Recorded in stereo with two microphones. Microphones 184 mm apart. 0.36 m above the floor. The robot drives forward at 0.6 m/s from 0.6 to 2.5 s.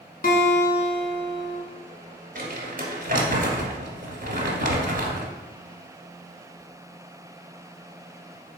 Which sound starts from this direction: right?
Crumpling, at 2.4 s.